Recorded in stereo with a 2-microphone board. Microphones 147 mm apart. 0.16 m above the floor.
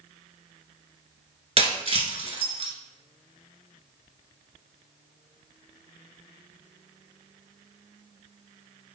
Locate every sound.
1.6 s breaking glass: 45° right (ahead or behind), 0.9 m